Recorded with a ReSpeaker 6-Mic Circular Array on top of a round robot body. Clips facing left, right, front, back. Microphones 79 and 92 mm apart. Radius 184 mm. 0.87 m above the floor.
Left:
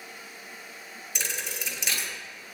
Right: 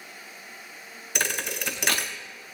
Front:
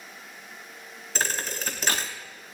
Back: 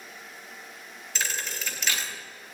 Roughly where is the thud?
Ahead right.